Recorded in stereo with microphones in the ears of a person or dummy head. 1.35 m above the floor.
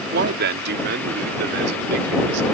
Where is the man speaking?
70° right (ahead or behind); by 2.4 s 75° right (ahead or behind).